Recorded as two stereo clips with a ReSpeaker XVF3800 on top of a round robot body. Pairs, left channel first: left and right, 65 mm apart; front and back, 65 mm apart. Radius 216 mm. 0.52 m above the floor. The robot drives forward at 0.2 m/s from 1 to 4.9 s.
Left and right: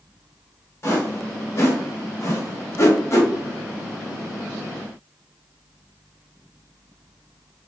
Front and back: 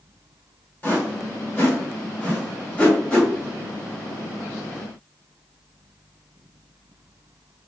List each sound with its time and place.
0.8 s a whoosh: 50° left, 1.6 m; by 3.3 s 75° left, 1.4 m